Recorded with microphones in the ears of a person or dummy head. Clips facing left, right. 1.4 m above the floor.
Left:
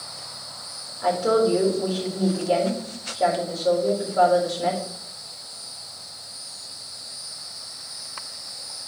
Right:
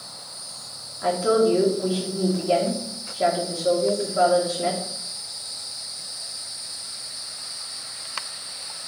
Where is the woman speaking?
40° right (ahead or behind), 2.5 m.